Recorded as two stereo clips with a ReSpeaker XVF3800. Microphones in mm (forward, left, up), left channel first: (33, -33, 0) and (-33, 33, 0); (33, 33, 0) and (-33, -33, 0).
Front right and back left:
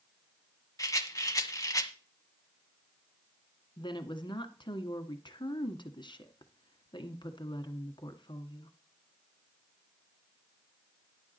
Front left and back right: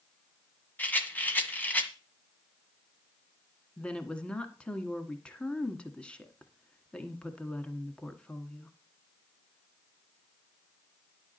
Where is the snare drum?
No snare drum in this recording.